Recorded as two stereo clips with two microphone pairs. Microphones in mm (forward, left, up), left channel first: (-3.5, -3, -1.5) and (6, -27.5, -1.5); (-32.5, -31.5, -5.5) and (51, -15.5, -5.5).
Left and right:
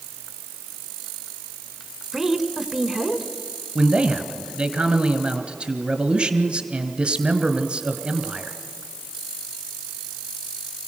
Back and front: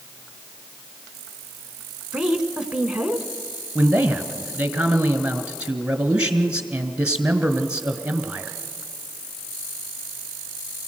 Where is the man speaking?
60° right, 1.5 m.